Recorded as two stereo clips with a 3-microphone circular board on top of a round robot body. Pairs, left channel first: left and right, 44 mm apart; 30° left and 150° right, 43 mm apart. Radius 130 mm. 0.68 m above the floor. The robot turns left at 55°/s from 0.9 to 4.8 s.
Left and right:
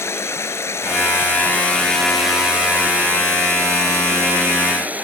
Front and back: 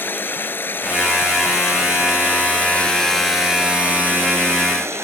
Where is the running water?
70° left; by 5.0 s 145° right.